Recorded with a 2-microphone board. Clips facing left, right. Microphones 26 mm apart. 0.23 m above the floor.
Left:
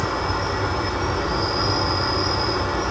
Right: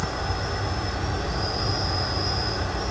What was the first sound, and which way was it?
An insect, 85° left.